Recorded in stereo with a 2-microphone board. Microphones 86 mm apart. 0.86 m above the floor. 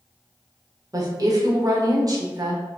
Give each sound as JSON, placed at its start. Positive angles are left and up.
{"t": 0.9, "sound": "a woman speaking", "side_deg": -45, "distance_m": 1.1}